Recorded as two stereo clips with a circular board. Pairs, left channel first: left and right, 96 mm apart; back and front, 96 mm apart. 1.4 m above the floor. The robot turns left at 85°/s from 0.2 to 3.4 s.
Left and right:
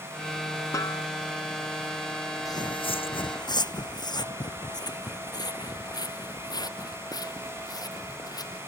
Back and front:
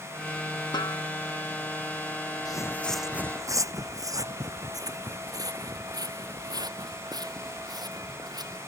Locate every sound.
0.7 s a snare drum: 145° left; by 1.0 s 120° left
2.5 s footsteps: 140° left; by 8.6 s 40° left